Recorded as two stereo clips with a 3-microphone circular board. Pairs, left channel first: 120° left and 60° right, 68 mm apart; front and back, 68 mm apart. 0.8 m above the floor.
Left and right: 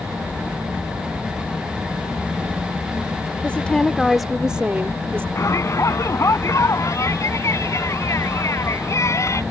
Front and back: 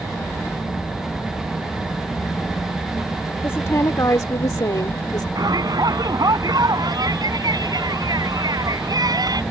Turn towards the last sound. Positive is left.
turn(degrees=165)